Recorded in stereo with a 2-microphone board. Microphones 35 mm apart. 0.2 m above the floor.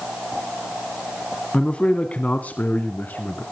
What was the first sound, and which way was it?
A man speaking, 30° left (ahead or behind).